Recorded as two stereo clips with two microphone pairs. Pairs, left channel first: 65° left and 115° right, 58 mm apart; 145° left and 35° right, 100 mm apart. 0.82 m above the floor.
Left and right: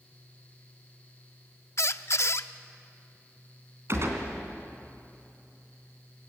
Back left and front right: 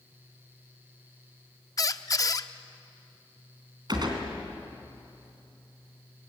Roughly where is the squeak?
Left.